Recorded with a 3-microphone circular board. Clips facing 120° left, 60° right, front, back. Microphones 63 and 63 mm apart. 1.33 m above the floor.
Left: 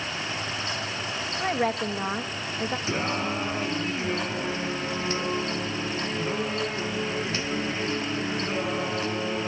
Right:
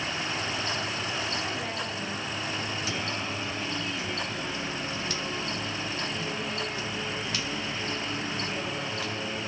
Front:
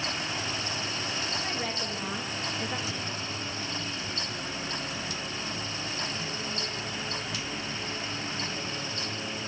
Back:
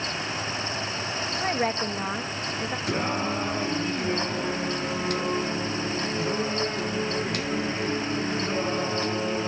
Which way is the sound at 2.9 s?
170° left.